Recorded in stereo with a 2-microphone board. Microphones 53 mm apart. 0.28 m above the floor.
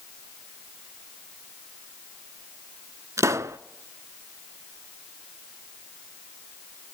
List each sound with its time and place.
3.2 s a pop: 75° right (ahead or behind), 0.5 m